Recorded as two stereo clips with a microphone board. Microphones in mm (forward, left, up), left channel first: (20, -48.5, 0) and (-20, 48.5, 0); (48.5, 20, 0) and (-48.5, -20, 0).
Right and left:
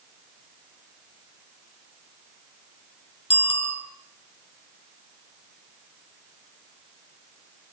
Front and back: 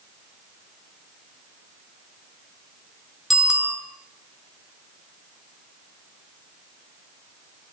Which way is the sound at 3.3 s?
70° right.